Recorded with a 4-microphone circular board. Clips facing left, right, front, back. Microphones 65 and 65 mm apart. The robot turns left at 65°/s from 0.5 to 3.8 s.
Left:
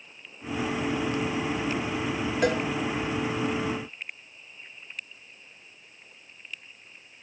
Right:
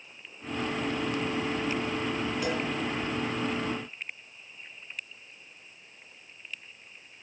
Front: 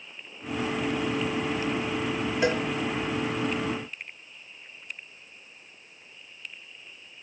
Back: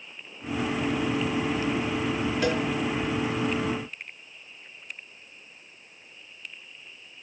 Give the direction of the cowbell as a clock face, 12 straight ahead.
10 o'clock.